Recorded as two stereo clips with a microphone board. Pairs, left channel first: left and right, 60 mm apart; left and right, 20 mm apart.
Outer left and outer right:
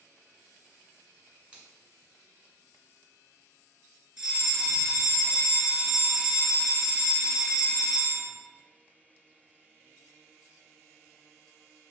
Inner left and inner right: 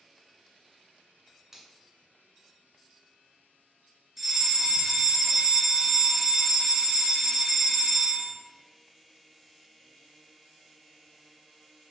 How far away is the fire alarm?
About 2.0 m.